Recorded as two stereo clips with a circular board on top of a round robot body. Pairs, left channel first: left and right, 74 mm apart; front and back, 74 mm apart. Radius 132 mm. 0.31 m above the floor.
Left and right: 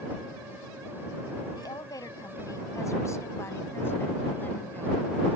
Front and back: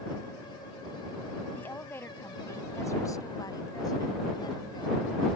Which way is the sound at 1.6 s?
65° left.